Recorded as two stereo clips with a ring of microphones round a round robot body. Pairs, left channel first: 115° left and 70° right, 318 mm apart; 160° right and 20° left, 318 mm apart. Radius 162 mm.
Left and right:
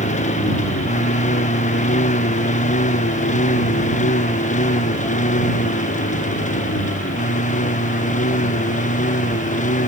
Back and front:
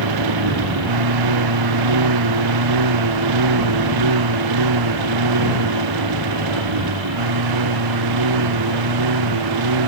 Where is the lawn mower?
45° left.